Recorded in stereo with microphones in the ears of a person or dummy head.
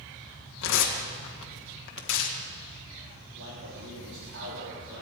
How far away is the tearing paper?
About 1.5 m.